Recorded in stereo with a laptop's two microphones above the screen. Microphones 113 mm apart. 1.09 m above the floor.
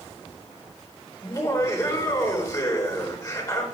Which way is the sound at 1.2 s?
30° left (ahead or behind).